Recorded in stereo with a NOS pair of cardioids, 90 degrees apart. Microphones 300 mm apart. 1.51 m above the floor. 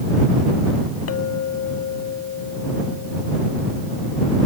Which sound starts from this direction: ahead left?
A clink, at 1.1 s.